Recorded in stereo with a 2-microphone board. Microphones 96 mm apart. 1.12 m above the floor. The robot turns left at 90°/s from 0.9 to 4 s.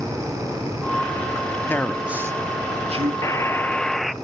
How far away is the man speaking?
About 1.9 m.